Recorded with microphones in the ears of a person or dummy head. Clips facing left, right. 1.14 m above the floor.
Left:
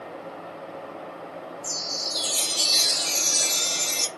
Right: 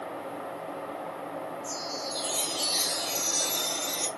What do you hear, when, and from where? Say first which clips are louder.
1.6 s a chime: right 1 dB; 25° left (ahead or behind), 0.6 m